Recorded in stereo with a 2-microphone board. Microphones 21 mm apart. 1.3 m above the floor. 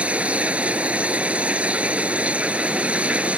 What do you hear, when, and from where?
0.0 s running water: 90° right